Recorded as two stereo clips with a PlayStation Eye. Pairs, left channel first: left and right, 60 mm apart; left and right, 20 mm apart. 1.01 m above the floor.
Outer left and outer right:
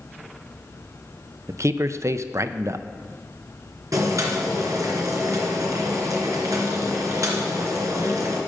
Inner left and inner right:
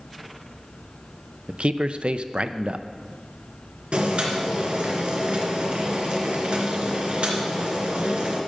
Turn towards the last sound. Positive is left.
turn(degrees=-65)  # may be behind; listen again after turning